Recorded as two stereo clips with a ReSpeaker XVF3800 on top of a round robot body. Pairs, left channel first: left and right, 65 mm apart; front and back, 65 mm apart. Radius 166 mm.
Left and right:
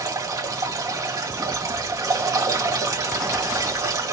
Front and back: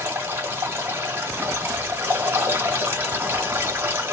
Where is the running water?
120° right, 1.4 m.